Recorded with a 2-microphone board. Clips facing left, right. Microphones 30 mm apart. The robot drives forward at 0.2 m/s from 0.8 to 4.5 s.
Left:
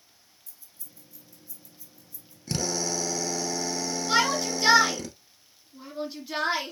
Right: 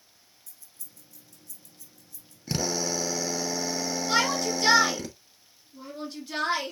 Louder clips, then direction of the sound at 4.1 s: Left 1 dB; 10° left (ahead or behind).